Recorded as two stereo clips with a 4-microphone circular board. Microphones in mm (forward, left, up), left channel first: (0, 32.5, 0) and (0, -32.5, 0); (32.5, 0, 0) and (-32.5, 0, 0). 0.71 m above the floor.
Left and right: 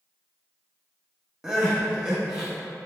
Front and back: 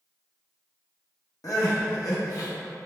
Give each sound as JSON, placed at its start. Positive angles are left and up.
{"t": 1.4, "sound": "crying", "azimuth_deg": -10, "distance_m": 0.7}